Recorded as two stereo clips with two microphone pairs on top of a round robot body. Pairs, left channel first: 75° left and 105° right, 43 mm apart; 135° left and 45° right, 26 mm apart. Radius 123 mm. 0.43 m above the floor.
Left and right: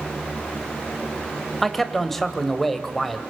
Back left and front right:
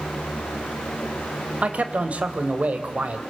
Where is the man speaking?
15° right, 2 m.